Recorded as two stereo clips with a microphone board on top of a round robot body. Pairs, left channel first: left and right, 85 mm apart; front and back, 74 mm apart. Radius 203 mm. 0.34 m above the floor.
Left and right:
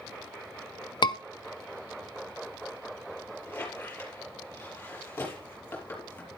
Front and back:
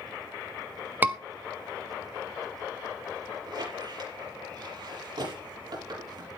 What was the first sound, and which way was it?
A scream, 115° left.